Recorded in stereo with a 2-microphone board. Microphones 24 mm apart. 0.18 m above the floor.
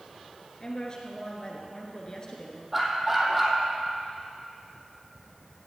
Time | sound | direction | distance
0.6 | a woman speaking | 35° left (ahead or behind) | 3 m
2.7 | a dog barking | 10° right (ahead or behind) | 2.5 m